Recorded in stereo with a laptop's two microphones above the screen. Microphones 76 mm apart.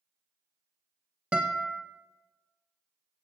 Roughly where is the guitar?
Centre.